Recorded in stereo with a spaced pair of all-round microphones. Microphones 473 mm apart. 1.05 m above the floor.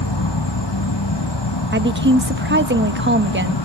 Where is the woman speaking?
25° right (ahead or behind), 1.3 m.